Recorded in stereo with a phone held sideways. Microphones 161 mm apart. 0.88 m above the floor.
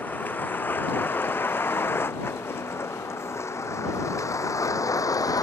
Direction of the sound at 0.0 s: 10° left (ahead or behind).